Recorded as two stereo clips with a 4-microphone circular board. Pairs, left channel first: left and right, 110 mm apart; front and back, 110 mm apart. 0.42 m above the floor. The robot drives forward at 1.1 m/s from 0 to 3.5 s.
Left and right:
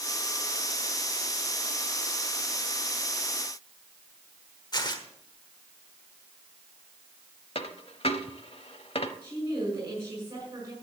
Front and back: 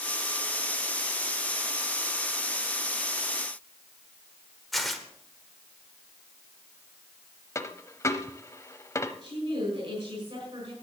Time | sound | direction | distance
4.7 | tearing paper | 90° left | 1.2 m
7.5 | a dropped coin | 65° left | 0.8 m
9.2 | a woman speaking | 155° right | 5 m